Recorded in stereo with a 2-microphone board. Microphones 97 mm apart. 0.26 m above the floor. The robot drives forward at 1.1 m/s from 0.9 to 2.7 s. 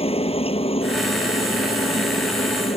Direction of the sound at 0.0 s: 75° left (ahead or behind).